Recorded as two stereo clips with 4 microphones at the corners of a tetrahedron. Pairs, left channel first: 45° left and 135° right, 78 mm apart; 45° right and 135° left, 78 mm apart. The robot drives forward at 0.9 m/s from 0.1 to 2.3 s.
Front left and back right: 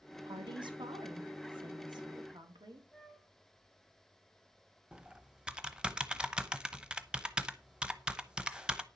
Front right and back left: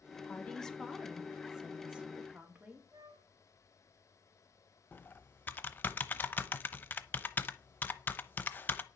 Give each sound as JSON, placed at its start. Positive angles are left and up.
{"t": 0.3, "sound": "a woman speaking", "azimuth_deg": -115, "distance_m": 1.5}
{"t": 2.9, "sound": "a flute", "azimuth_deg": 120, "distance_m": 1.3}
{"t": 4.9, "sound": "typing on a keyboard", "azimuth_deg": -70, "distance_m": 0.9}